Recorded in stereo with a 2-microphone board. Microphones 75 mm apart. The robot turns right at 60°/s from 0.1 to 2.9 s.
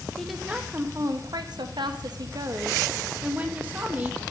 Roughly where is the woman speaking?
Behind.